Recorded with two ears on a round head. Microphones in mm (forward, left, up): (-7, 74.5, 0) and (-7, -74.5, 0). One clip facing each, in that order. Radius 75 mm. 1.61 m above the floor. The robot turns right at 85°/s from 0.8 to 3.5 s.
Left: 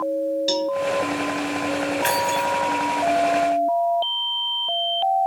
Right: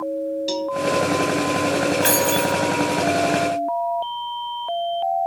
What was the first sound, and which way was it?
A cowbell, centre (ahead or behind).